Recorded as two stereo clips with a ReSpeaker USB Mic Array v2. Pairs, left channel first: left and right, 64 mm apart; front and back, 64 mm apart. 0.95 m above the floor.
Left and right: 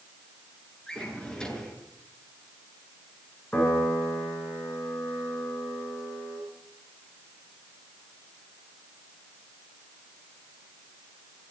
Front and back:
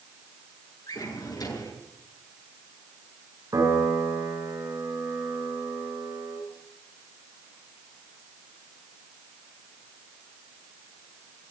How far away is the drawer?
About 6.5 m.